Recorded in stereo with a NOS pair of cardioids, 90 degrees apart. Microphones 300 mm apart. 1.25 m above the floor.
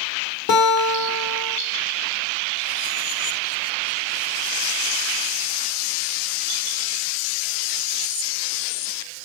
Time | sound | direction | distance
0.5 | a guitar | 70° left | 0.8 m